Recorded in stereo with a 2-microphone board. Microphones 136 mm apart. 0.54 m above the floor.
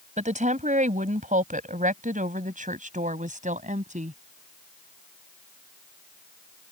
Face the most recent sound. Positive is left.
turn(degrees=-65)  # may be behind; listen again after turning